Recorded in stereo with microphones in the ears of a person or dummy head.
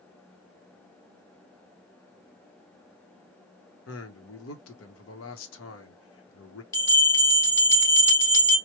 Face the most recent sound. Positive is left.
turn(degrees=20)  # may be behind; listen again after turning